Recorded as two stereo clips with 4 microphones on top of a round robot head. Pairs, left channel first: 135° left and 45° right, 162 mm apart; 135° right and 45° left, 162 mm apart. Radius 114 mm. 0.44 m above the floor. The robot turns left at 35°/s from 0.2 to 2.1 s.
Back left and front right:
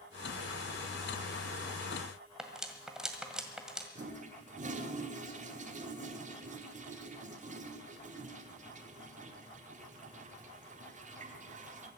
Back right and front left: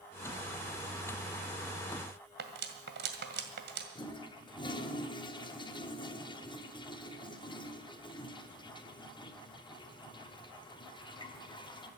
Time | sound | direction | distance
2.4 | cutlery clinking | 40° left | 1.9 m
4.0 | a toilet flushing | 75° right | 1.6 m